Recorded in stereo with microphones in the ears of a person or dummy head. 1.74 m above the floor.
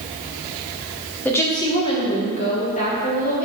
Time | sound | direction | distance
1.2 | a woman speaking | 10° left (ahead or behind) | 1.8 m